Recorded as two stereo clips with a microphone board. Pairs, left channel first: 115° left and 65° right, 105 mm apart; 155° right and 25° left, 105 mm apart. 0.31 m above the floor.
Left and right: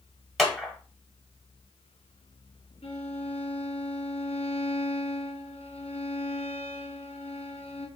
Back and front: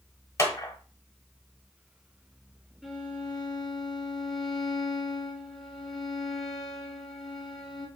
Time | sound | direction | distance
0.4 | a clap | 160° right | 1.3 m
2.8 | a violin | 110° left | 1.4 m